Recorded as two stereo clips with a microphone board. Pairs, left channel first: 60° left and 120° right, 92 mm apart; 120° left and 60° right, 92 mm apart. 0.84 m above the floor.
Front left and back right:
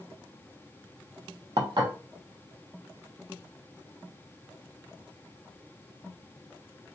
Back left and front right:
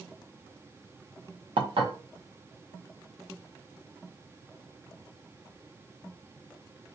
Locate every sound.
1.6 s dishes clattering: 85° right, 0.7 m